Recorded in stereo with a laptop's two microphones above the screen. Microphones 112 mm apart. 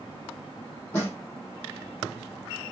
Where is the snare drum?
15° left (ahead or behind), 6 m.